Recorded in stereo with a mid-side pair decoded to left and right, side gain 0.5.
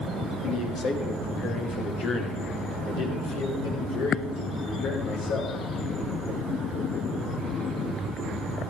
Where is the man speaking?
70° left, 3 m; by 5.5 s 80° left, 6.5 m.